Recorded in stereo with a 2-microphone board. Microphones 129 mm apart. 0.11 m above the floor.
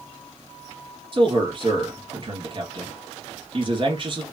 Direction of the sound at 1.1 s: 40° right (ahead or behind).